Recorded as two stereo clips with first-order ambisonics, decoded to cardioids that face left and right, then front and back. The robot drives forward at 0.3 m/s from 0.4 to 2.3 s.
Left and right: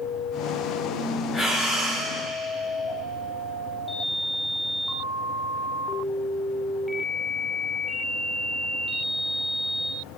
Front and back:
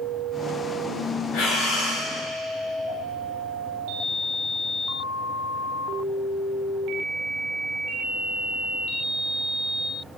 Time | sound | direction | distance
1.3 | breathing | 5° left | 3.5 m